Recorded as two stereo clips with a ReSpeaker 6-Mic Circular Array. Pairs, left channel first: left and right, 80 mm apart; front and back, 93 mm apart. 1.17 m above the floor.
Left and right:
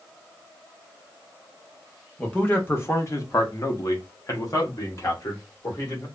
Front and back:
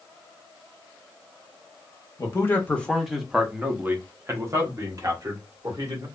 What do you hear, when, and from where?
2.2 s a man speaking: 30° left, 0.8 m; by 6.0 s 140° left, 1.8 m